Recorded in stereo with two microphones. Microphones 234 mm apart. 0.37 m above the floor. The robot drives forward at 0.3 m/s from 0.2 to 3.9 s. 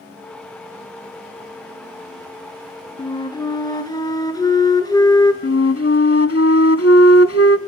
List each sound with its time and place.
3.0 s a flute: 20° left (ahead or behind), 1.3 m; by 5.3 s 15° left (ahead or behind), 1.5 m
5.4 s a flute: 75° left (ahead or behind), 0.7 m